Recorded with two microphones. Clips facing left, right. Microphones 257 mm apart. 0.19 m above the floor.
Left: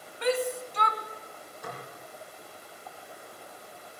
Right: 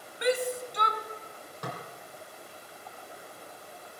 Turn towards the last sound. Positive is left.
turn(degrees=-80)